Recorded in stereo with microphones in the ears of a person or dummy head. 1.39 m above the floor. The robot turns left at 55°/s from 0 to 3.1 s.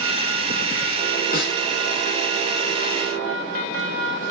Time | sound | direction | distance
1.3 | a snare drum | 60° left (ahead or behind) | 2 m